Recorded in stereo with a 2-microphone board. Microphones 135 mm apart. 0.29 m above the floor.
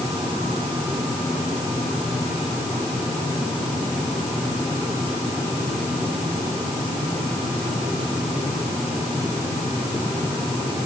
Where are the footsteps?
I don't hear footsteps.